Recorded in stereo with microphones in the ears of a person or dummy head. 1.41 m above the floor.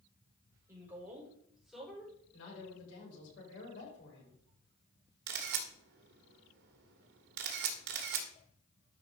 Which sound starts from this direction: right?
A camera shutter, at 5.3 s.